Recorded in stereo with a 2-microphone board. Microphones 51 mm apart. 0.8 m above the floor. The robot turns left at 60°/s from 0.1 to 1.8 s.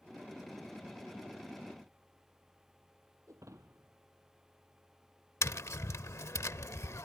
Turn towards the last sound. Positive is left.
turn(degrees=65)  # may be behind; listen again after turning